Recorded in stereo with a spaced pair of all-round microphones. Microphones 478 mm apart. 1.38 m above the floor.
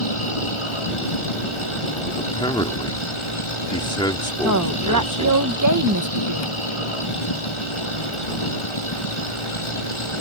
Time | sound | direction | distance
0.0 | a machine running | 85° left | ?
2.2 | a man speaking | 10° left (ahead or behind) | ?
4.4 | a woman speaking | 40° right (ahead or behind) | ?